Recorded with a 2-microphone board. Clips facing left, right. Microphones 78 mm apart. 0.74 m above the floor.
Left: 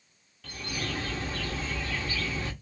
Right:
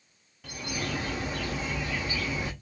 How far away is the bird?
About 0.7 m.